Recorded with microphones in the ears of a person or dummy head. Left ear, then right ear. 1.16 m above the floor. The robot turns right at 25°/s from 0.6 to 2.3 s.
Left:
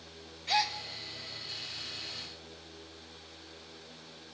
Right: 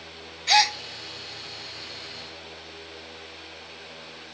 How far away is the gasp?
About 0.7 m.